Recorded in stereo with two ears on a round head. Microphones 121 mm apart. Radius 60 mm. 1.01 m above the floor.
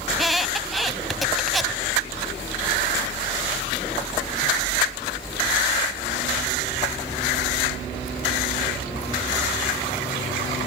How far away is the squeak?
About 1.1 m.